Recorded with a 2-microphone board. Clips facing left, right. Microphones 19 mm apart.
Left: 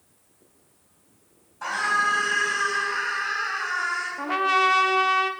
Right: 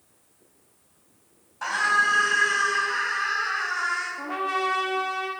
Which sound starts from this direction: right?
A scream, at 1.6 s.